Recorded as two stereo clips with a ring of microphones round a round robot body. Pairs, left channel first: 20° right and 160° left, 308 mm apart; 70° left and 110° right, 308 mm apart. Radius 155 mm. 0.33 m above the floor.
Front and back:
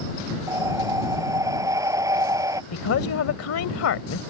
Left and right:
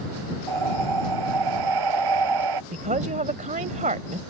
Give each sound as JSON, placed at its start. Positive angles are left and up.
{"t": 0.5, "sound": "breathing", "azimuth_deg": -125}
{"t": 2.7, "sound": "a woman speaking", "azimuth_deg": -50}